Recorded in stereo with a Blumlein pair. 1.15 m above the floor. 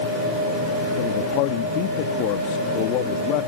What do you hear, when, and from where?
1.0 s a man speaking: 40° left